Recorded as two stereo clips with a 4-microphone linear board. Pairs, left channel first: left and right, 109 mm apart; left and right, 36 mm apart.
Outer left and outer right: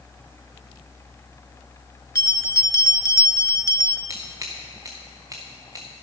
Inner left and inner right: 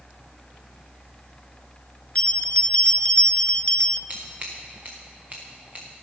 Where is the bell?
30° left (ahead or behind), 0.5 m.